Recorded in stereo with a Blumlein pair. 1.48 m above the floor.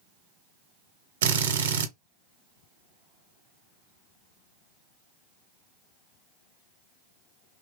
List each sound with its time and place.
1.2 s a drill: 60° right, 0.7 m